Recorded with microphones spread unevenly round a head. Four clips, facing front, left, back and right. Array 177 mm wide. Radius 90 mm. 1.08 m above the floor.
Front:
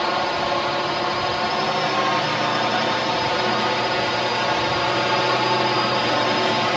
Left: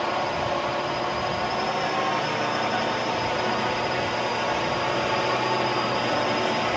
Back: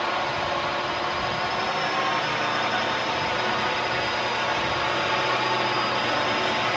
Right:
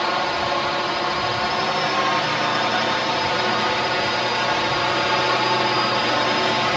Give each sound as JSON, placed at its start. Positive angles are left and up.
{"t": 0.0, "sound": "a drone", "azimuth_deg": -30}